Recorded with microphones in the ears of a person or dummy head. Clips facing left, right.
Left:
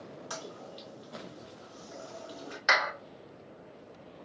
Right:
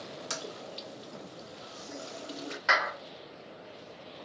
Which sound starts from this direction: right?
A toilet flushing, at 0.3 s.